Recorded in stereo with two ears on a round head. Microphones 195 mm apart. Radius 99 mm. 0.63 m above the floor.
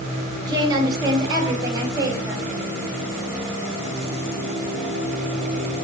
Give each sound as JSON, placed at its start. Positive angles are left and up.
{"t": 0.5, "sound": "a woman speaking", "side_deg": -20, "distance_m": 3.0}